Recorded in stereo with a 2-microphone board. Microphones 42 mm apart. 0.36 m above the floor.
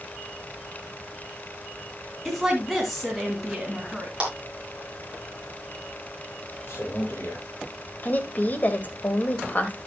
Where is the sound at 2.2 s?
5° right (ahead or behind), 2.5 m.